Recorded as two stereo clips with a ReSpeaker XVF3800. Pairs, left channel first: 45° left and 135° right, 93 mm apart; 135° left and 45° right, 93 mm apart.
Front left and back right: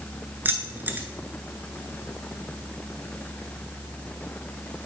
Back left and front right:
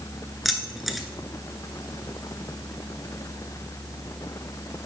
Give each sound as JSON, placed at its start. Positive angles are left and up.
{"t": 0.5, "sound": "keys jangling", "azimuth_deg": -135, "distance_m": 0.8}